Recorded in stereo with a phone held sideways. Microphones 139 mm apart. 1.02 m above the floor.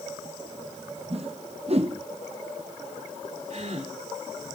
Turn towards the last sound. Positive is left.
turn(degrees=-55)  # may be behind; listen again after turning